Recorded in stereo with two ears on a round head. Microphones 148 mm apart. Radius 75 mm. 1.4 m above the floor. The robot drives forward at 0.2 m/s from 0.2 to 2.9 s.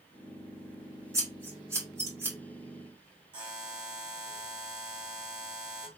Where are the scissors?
15° right (ahead or behind), 2 m.